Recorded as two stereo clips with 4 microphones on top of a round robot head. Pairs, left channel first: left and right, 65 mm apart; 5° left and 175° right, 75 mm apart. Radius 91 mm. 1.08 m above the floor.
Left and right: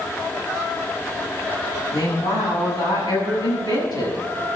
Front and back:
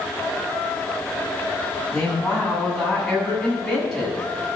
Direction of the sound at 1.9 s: 90° left.